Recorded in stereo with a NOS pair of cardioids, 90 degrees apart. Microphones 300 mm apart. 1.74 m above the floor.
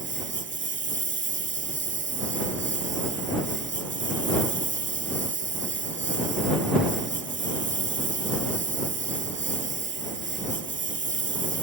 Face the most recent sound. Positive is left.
turn(degrees=-40)